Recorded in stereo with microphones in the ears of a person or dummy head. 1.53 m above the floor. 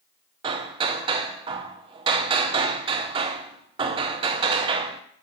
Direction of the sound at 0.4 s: 35° right (ahead or behind).